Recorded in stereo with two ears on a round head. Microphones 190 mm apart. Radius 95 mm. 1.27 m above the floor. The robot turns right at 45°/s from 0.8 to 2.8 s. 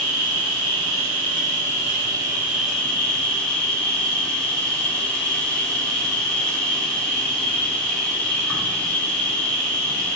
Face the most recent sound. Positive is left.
turn(degrees=5)